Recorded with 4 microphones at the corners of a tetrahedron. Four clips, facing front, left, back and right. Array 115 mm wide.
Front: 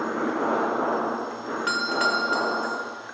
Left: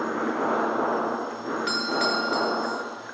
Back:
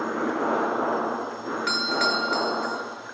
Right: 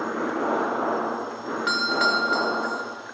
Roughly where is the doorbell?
Ahead right.